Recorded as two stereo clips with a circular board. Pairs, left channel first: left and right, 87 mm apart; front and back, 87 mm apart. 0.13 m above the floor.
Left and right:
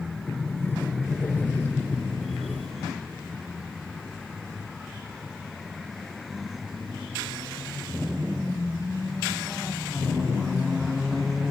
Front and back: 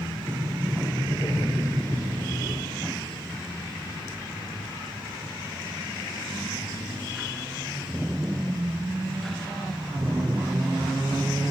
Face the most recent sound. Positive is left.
turn(degrees=35)